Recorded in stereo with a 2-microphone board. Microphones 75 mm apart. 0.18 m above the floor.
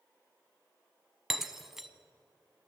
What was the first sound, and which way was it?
Breaking glass, 5° right (ahead or behind).